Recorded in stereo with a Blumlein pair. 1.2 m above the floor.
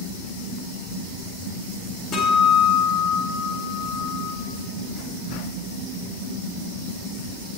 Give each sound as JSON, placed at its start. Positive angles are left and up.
{"t": 2.1, "sound": "a guitar", "azimuth_deg": 25, "distance_m": 5.0}